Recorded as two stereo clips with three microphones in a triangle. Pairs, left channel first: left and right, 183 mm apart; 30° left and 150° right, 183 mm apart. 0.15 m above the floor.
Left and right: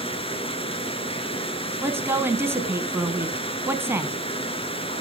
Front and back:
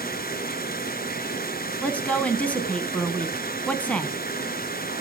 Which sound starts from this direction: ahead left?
Running water, at 0.0 s.